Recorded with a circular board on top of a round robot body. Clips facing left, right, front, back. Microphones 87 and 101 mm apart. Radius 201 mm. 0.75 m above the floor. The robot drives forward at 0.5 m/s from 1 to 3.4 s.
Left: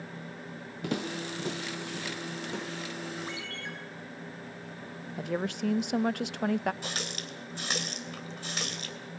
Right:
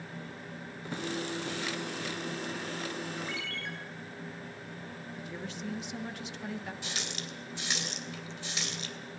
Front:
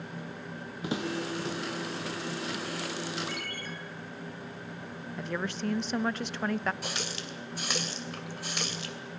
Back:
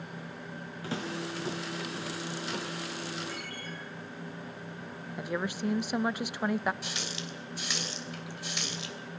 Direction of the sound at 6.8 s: 45° left.